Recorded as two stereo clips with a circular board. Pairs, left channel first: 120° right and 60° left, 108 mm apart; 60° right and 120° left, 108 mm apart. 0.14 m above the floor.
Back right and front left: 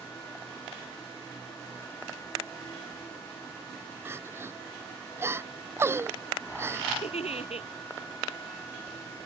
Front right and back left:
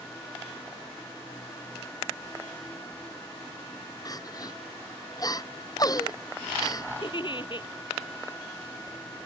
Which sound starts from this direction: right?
A giggle, at 7.0 s.